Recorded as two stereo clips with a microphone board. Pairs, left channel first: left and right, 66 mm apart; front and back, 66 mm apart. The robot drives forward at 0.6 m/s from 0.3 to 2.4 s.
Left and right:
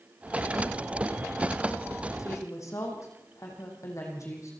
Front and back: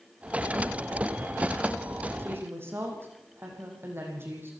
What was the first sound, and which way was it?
A woman speaking, 125° left.